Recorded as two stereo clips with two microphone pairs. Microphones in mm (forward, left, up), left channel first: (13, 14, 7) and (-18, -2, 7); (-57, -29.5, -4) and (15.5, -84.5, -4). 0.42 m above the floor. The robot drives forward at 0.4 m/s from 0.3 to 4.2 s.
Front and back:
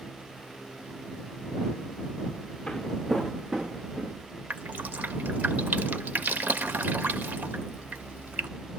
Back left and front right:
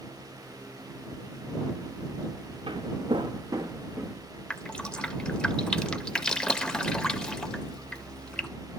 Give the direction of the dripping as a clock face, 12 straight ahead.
4 o'clock.